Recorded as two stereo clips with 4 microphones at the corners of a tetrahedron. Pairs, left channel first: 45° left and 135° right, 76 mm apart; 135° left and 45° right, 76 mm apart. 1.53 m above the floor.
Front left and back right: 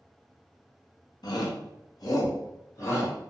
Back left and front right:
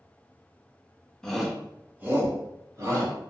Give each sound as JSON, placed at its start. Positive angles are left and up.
{"t": 1.2, "sound": "a shout", "azimuth_deg": 55, "distance_m": 0.8}